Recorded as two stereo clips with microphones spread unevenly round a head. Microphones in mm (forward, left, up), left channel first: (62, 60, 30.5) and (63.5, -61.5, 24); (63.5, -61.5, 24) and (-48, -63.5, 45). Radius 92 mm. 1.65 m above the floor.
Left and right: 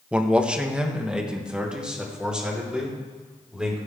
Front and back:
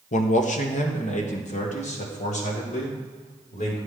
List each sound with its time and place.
0.1 s a man speaking: 10° right, 1.1 m; by 3.8 s 5° right, 5 m